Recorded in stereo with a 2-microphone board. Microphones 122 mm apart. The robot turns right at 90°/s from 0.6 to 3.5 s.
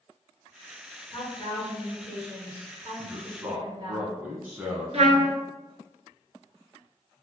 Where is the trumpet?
65° right (ahead or behind), 0.7 m.